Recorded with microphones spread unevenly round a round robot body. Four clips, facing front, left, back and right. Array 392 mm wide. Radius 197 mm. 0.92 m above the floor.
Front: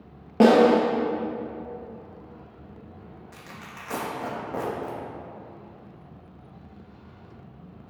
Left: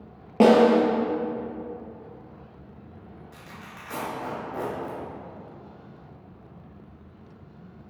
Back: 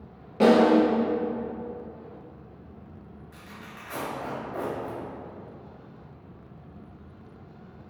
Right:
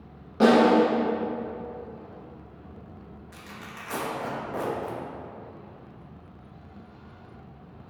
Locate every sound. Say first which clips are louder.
0.4 s a snare drum: left 2 dB, front 2 dB; 45° left, 1.3 m
3.3 s tearing paper: right 4 dB, front 1 dB; 10° right, 1.7 m